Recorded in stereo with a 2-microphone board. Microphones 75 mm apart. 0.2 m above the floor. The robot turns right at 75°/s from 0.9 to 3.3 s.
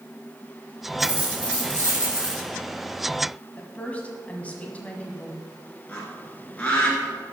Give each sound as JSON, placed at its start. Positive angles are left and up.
{"t": 1.0, "sound": "a dropped coin", "azimuth_deg": -25, "distance_m": 3.5}
{"t": 3.6, "sound": "a woman speaking", "side_deg": 20, "distance_m": 1.4}
{"t": 5.9, "sound": "a bird", "side_deg": 20, "distance_m": 2.0}